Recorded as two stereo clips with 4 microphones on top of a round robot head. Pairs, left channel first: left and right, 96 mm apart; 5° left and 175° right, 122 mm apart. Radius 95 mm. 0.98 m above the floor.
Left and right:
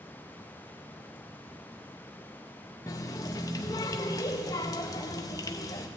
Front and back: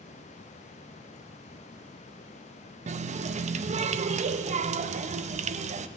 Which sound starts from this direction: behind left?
A running tap, at 2.9 s.